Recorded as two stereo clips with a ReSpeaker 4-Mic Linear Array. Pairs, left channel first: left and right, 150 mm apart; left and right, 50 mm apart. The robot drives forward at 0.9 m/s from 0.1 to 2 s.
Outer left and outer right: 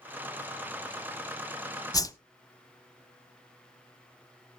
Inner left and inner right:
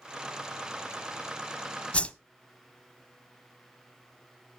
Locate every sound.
1.9 s a whoosh: 25° left (ahead or behind), 0.6 m